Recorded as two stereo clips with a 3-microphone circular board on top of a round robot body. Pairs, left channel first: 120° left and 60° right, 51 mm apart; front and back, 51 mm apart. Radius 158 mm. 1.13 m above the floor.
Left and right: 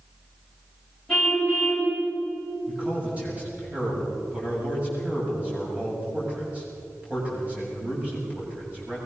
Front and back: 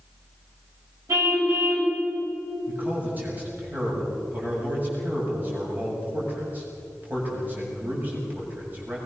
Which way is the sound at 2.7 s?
125° right.